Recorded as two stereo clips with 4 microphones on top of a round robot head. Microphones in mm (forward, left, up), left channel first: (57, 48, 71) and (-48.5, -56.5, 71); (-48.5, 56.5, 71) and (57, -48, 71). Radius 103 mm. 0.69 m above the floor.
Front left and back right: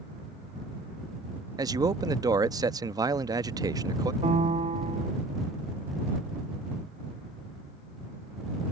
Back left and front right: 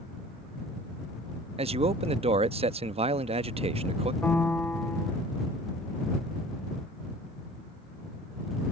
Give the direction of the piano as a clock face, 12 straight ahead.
5 o'clock.